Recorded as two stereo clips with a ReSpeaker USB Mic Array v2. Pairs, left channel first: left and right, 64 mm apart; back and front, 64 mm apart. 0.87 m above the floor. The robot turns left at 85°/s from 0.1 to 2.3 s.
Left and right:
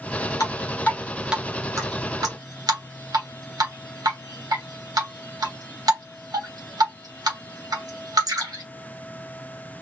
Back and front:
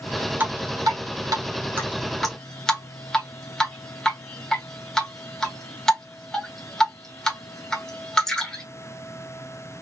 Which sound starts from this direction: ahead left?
Dripping, at 0.4 s.